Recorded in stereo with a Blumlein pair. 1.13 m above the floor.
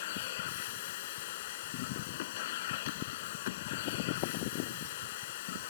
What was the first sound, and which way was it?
A machine running, 55° left.